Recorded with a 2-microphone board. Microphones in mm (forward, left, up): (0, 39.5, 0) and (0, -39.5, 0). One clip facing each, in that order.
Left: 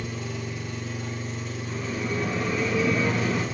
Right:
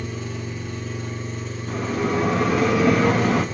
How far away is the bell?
About 0.8 m.